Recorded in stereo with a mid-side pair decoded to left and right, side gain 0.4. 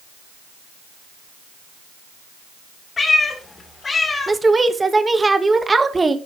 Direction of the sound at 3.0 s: 40° left.